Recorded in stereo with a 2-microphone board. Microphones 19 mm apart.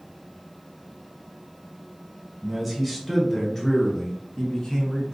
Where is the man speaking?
5° right (ahead or behind), 1.2 m; by 5.1 s 40° left (ahead or behind), 1.5 m.